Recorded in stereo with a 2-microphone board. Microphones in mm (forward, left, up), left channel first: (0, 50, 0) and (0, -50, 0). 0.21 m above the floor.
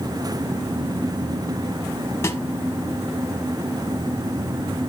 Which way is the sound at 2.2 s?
30° left (ahead or behind).